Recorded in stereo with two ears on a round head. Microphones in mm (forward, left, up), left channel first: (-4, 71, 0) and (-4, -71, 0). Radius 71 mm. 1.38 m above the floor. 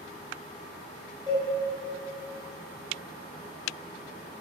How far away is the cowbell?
About 1.6 m.